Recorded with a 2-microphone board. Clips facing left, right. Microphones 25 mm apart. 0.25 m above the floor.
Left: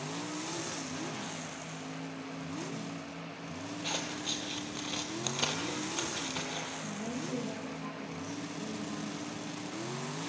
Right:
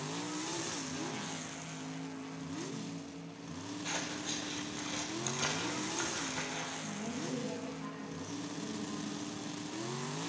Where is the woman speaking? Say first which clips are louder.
Left 2 dB; 40° left (ahead or behind), 8.5 m.